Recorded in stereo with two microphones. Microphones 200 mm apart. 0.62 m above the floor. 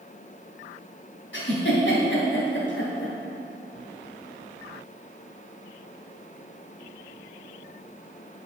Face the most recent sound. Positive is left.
turn(degrees=70)  # may be behind; listen again after turning